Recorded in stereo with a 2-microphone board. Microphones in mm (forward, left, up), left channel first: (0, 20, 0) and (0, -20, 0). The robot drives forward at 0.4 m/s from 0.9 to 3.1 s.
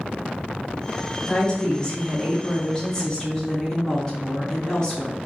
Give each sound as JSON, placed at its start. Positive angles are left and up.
{"t": 1.3, "sound": "a woman speaking", "side_deg": 20, "distance_m": 1.2}